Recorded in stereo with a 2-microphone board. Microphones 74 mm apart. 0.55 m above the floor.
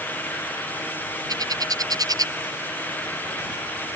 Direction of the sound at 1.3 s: 55° right (ahead or behind).